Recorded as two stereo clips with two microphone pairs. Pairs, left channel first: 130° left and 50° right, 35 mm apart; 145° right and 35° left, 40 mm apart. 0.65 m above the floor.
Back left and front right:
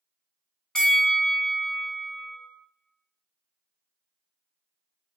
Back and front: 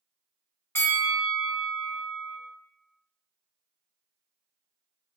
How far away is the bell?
About 0.8 m.